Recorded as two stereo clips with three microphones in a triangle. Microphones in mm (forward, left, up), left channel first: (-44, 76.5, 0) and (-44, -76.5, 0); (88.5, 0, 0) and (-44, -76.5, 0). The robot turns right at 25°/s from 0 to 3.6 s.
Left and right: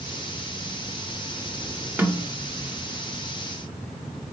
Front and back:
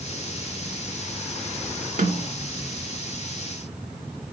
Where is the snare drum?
170° right, 2.5 m; by 2.3 s 165° right, 2.5 m.